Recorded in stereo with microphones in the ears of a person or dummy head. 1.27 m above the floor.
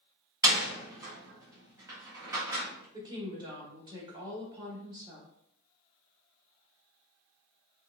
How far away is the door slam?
About 1.0 m.